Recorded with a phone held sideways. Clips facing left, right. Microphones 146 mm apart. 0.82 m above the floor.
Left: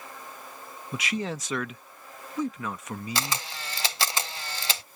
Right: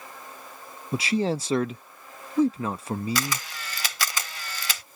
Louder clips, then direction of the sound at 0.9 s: Right 7 dB; 35° right (ahead or behind).